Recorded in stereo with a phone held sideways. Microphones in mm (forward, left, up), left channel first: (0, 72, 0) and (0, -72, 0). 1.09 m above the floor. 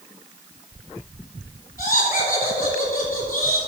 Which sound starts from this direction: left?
Laughter, at 1.8 s.